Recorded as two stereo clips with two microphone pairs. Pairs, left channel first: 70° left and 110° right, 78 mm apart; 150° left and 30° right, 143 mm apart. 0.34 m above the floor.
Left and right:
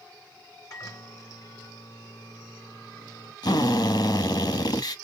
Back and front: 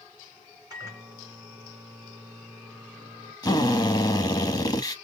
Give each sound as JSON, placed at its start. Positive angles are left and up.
{"t": 0.7, "sound": "a microwave", "azimuth_deg": 35, "distance_m": 2.5}
{"t": 3.4, "sound": "a drill", "azimuth_deg": 95, "distance_m": 0.8}